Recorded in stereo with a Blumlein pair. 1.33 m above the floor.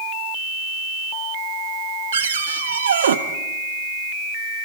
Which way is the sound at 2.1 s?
65° right.